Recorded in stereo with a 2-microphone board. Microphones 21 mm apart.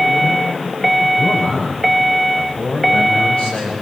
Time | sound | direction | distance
1.2 | a man speaking | 60° left (ahead or behind) | 6.5 m